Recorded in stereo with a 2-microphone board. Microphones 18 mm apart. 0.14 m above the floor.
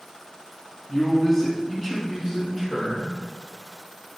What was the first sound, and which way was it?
A man speaking, 20° left (ahead or behind).